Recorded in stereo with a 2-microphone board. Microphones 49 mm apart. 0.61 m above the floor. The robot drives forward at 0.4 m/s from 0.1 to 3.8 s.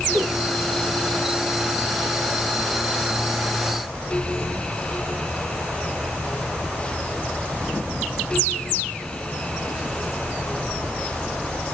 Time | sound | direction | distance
0.1 | a whoosh | 70° right (ahead or behind) | 5.5 m